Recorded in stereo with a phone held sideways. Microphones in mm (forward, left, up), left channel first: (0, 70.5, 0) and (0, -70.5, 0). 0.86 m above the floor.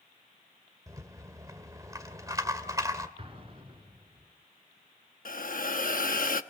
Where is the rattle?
25° right (ahead or behind), 1.7 m.